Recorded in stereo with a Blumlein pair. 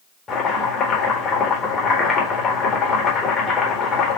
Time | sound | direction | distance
0.3 | chopping | 15° left | 1.5 m